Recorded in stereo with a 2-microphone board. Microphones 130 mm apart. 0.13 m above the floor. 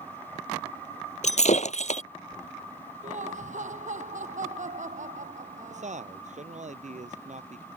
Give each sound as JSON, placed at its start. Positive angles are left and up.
{"t": 1.2, "sound": "breaking glass", "side_deg": 65}
{"t": 3.0, "sound": "laughter", "side_deg": -70}
{"t": 5.7, "sound": "a man speaking", "side_deg": -65}